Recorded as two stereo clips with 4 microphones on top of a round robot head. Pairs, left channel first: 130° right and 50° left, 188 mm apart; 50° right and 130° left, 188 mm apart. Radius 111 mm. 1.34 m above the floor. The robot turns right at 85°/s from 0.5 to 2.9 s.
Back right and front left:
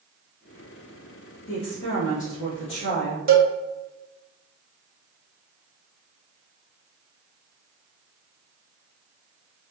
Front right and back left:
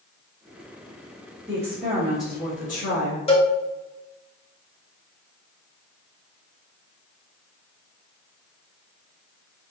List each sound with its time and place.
1.5 s a woman speaking: 170° right, 2.0 m; by 3.2 s 50° right, 2.0 m
3.3 s a cowbell: 10° left, 1.0 m